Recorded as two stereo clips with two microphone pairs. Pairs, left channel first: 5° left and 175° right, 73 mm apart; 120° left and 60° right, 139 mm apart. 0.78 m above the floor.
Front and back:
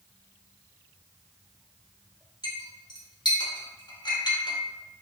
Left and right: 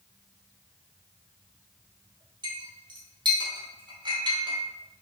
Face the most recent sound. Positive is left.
turn(degrees=0)